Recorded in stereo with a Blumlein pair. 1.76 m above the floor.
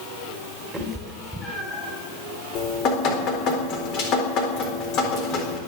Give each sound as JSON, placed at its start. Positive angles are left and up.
{"t": 0.7, "sound": "a cat meowing", "azimuth_deg": 0, "distance_m": 3.5}
{"t": 2.5, "sound": "dripping", "azimuth_deg": 35, "distance_m": 3.5}